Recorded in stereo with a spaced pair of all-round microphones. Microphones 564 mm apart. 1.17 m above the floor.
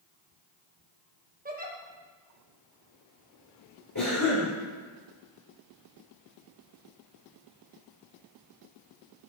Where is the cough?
35° left (ahead or behind), 3.5 m.